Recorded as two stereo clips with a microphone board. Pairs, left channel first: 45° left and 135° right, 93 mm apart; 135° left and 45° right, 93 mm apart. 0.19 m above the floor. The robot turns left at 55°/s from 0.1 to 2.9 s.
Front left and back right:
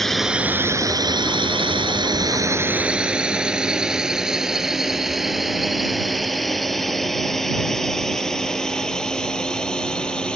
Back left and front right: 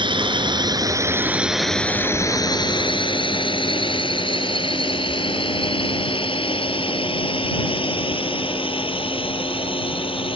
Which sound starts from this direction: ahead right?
A drone, at 0.0 s.